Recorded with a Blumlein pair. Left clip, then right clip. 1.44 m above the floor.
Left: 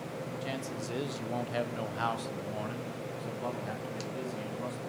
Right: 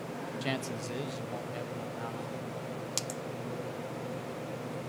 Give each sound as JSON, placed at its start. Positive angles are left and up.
{"t": 0.4, "sound": "a man speaking", "azimuth_deg": -25, "distance_m": 0.6}